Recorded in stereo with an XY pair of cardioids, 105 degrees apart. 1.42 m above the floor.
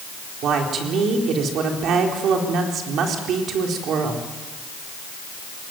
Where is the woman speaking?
70° right, 4 m.